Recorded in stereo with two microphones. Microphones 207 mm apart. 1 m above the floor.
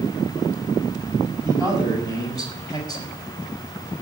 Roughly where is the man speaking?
Centre.